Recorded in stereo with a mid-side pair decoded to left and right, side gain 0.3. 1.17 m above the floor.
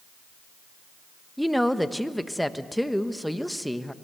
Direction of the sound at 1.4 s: Straight ahead.